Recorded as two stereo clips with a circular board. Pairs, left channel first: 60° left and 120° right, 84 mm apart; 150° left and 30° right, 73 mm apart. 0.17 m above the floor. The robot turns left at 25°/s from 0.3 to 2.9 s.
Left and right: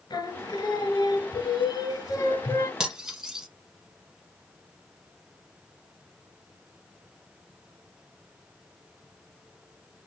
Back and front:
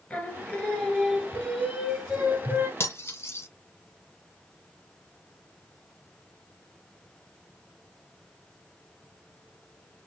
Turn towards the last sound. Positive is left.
turn(degrees=160)